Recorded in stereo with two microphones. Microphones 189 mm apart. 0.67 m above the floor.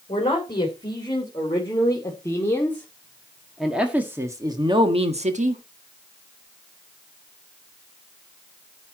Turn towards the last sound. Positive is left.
turn(degrees=-45)  # may be behind; listen again after turning